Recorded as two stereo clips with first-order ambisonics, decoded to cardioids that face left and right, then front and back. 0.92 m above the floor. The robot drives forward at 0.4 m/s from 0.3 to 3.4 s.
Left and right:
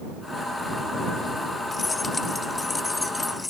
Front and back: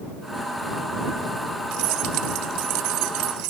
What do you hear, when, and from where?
1.7 s keys jangling: 165° left; by 3.5 s 170° left